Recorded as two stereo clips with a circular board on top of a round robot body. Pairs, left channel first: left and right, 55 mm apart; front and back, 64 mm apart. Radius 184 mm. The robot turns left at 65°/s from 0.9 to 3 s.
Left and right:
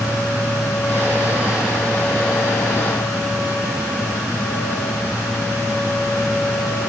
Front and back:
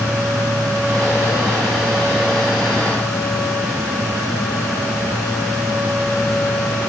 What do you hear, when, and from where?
Only background noise.